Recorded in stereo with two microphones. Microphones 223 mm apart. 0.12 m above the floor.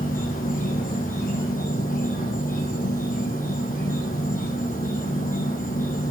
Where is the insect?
40° left (ahead or behind), 1.3 m.